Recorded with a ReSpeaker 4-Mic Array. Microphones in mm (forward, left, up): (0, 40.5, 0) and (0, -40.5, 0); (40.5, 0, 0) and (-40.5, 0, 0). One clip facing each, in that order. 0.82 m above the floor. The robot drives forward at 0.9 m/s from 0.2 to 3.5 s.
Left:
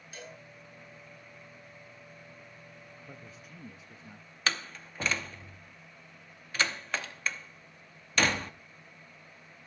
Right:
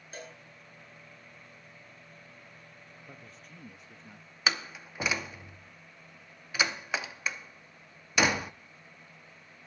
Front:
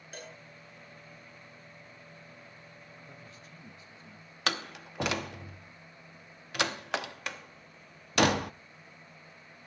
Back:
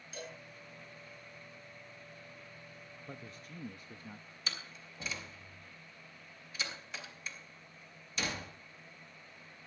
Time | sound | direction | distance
0.1 | a cowbell | 40° right | 7 m
3.1 | a man speaking | 170° left | 0.7 m
4.5 | a door slam | 10° right | 0.7 m